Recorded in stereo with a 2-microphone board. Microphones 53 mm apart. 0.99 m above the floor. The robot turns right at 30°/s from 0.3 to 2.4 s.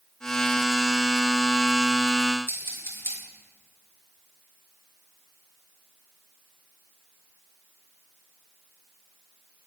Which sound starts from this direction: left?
Scissors, at 2.5 s.